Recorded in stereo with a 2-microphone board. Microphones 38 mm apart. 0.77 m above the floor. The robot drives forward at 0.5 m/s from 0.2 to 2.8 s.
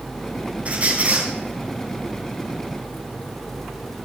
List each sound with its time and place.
0.7 s a squeak: 35° right (ahead or behind), 4 m